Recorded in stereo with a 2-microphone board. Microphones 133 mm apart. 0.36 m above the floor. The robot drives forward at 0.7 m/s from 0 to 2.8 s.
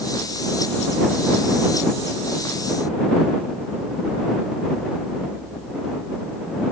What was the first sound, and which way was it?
Only background noise.